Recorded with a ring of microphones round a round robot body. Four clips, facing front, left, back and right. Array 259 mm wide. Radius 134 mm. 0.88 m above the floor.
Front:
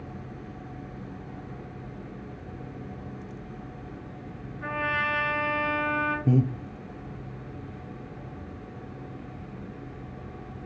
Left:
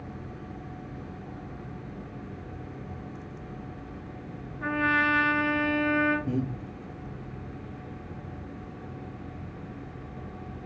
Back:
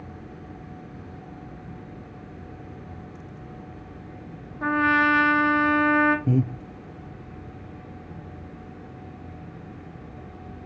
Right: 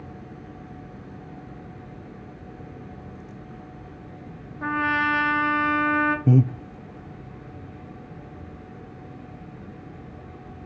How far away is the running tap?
No running tap in this recording.